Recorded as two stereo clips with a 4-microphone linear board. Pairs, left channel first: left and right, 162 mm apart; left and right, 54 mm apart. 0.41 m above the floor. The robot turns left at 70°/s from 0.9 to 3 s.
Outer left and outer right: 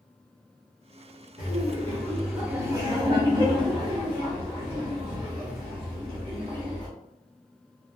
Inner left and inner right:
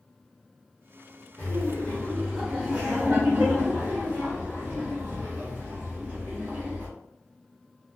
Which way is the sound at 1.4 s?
55° left.